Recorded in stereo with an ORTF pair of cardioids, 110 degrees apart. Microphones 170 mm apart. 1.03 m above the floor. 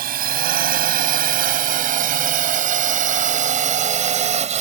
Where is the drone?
60° right; by 4.6 s 45° right.